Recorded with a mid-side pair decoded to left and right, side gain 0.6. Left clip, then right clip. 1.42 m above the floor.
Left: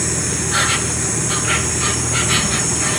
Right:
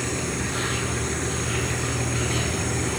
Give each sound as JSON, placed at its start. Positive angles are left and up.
{"t": 0.0, "sound": "an insect", "azimuth_deg": 65, "distance_m": 2.5}